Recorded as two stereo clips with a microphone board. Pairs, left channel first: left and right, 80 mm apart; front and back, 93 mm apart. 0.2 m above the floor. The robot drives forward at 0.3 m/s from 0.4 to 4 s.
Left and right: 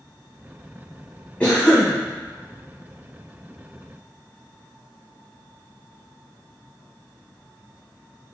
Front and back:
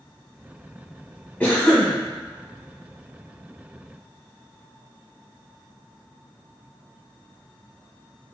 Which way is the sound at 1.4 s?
45° left.